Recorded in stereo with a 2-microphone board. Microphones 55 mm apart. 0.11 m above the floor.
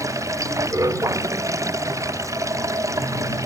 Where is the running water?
70° right (ahead or behind).